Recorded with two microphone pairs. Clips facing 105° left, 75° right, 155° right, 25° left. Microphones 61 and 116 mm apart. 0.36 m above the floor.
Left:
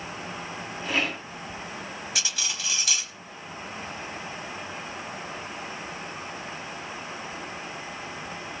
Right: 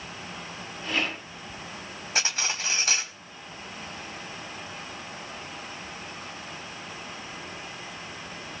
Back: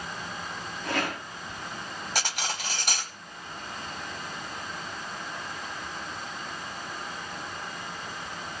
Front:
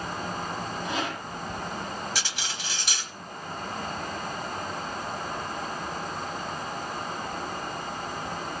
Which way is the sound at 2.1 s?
120° right.